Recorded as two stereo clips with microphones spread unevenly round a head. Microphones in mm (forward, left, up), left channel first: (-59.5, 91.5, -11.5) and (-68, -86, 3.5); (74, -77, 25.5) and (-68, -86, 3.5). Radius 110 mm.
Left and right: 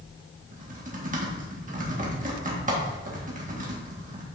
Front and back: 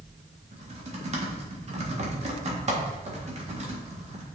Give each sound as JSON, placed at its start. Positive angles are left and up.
{"t": 0.5, "sound": "typing on a keyboard", "azimuth_deg": -135, "distance_m": 1.8}